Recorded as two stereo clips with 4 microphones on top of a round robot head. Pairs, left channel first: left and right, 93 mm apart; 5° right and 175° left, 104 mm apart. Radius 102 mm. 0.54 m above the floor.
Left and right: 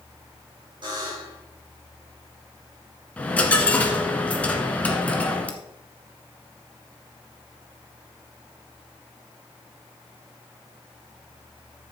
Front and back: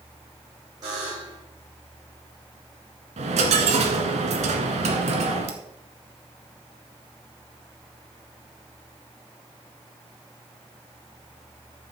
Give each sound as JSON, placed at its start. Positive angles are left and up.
{"t": 0.8, "sound": "a buzzer", "azimuth_deg": -125, "distance_m": 5.0}
{"t": 3.2, "sound": "a dropped coin", "azimuth_deg": 165, "distance_m": 1.4}